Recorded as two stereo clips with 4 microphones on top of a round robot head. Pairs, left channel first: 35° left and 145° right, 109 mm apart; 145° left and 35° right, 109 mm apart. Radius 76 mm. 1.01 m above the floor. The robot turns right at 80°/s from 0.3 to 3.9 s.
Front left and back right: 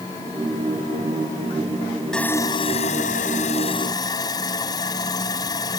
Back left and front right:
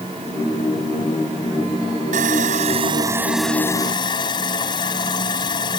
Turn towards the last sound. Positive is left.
turn(degrees=95)